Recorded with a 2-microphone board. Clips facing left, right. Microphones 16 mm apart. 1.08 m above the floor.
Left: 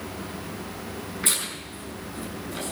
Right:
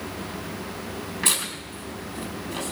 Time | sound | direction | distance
1.2 | tearing paper | 50° right (ahead or behind) | 5 m